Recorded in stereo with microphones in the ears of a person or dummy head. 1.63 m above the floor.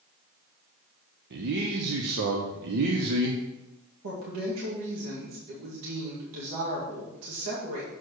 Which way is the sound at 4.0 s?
85° right.